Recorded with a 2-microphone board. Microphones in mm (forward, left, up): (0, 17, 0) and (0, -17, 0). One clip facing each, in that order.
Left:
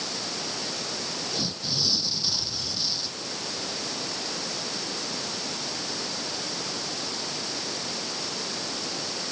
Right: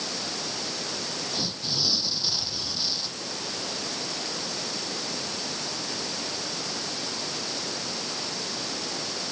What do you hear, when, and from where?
1.3 s tearing paper: 10° right (ahead or behind)